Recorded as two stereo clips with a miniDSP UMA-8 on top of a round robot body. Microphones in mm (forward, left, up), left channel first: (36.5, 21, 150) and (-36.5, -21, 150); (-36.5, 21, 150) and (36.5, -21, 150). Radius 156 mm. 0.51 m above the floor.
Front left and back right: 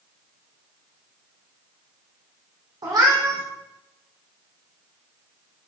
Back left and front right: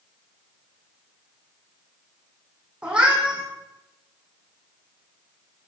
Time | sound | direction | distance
2.8 | a cat meowing | 105° right | 2.5 m